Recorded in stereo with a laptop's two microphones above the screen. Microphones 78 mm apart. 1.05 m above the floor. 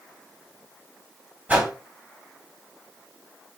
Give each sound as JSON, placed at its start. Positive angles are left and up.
{"t": 1.5, "sound": "a whoosh", "side_deg": -20, "distance_m": 1.2}